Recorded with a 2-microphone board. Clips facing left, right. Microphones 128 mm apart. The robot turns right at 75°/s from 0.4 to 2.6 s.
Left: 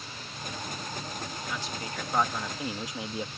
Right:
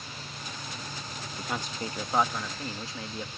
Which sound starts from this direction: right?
A man speaking, at 1.4 s.